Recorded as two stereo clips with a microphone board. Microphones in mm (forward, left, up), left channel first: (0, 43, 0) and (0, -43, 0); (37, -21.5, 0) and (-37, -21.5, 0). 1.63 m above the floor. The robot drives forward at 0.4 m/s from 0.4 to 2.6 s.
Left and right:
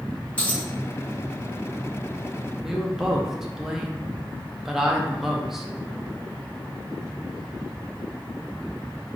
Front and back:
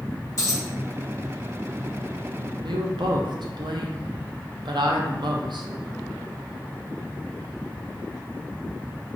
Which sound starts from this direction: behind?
A woman speaking, at 2.6 s.